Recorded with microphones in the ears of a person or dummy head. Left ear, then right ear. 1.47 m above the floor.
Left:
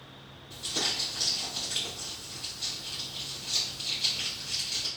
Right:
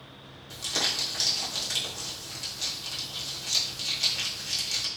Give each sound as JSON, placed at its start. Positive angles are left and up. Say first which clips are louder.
{"t": 0.5, "sound": "crumpling", "louder": "right 3 dB", "side_deg": -65, "distance_m": 1.1}